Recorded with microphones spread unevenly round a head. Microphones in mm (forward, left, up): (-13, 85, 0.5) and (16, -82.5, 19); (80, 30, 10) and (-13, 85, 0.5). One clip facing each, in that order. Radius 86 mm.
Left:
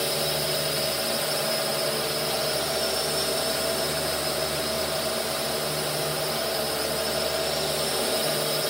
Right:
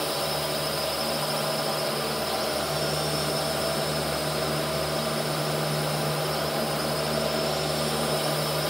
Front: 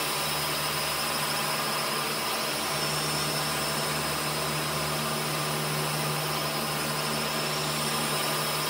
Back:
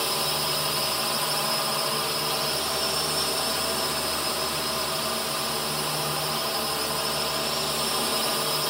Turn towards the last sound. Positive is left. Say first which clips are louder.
# left 1 dB, back 3 dB
turn(degrees=125)